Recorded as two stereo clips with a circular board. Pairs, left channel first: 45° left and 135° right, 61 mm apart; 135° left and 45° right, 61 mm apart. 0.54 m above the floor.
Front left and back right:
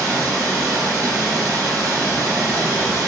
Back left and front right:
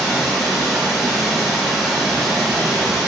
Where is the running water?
135° right, 1.6 m.